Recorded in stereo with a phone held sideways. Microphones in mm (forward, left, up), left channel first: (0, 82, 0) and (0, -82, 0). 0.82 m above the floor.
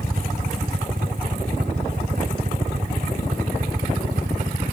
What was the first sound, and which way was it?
A helicopter, 60° right (ahead or behind).